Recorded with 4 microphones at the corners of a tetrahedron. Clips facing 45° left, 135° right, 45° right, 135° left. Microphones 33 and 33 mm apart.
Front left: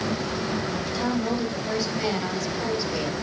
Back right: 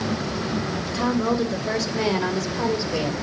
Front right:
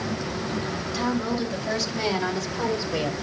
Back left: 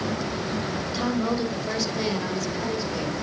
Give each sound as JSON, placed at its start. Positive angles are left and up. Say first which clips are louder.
{"t": 0.9, "sound": "a woman speaking", "louder": "back right 5 dB, even", "azimuth_deg": -160, "distance_m": 3.0}